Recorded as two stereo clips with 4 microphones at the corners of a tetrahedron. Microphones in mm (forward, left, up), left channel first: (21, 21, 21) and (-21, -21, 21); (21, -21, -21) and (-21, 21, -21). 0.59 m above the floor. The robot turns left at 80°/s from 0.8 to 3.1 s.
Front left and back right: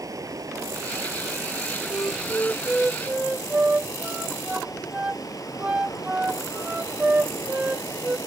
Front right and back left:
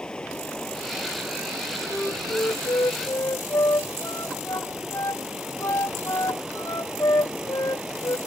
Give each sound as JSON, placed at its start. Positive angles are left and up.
{"t": 0.0, "sound": "running water", "azimuth_deg": -120}
{"t": 1.9, "sound": "a flute", "azimuth_deg": 30}